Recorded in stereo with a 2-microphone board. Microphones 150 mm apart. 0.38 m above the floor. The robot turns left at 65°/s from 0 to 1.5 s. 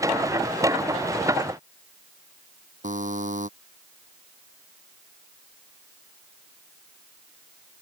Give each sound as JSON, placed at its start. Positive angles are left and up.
{"t": 2.8, "sound": "a buzzer", "side_deg": -55}